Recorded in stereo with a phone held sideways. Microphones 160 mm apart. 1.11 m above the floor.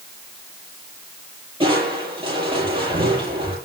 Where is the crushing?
35° right (ahead or behind), 9.5 m.